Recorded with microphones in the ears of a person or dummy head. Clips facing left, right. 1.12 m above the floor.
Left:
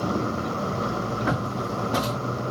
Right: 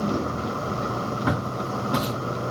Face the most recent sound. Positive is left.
turn(degrees=-20)  # may be behind; listen again after turning